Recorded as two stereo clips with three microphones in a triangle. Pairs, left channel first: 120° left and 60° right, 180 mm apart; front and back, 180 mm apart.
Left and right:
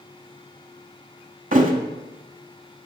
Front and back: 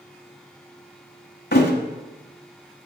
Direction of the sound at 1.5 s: 20° right.